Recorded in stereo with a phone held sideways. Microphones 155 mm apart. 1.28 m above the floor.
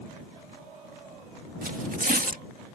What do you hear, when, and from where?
1.6 s tearing paper: 65° right (ahead or behind)